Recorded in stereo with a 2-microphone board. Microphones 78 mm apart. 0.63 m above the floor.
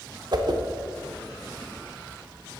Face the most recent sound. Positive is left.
turn(degrees=-55)  # may be behind; listen again after turning